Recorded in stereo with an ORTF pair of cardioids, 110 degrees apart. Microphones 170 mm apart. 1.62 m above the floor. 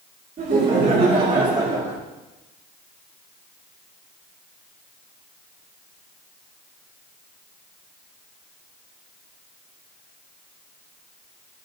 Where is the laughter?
40° right, 2 m; by 2.0 s 15° right, 1.9 m.